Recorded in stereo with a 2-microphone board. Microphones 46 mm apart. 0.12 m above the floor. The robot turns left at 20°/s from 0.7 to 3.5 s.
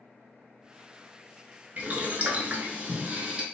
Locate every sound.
1.8 s boiling: 105° right, 0.6 m; by 3.4 s 140° right, 0.6 m